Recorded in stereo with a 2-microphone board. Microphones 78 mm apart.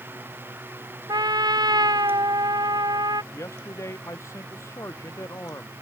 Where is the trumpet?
60° right (ahead or behind).